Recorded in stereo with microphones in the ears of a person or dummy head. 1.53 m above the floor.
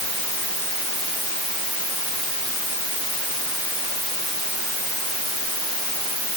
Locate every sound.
Only background noise.